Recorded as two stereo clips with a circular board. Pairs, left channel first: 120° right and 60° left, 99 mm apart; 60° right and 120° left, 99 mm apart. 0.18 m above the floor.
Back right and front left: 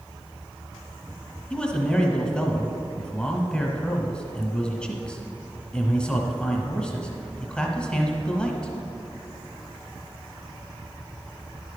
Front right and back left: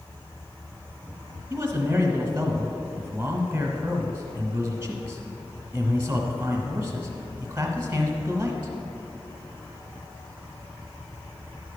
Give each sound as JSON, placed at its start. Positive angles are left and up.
{"t": 1.5, "sound": "a man speaking", "azimuth_deg": 170, "distance_m": 1.1}